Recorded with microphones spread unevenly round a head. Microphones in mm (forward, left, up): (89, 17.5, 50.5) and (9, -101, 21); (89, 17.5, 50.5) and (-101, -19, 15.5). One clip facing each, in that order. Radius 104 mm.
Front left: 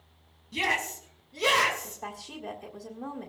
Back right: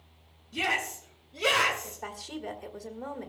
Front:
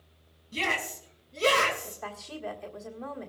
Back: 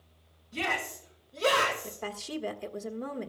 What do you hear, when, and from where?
0.5 s a shout: 60° left, 5 m; by 2.0 s 75° left, 5 m
1.8 s a woman speaking: 155° left, 1.4 m